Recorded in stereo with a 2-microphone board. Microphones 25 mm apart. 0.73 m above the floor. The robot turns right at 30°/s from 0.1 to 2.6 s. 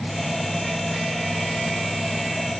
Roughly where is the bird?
I don't hear a bird.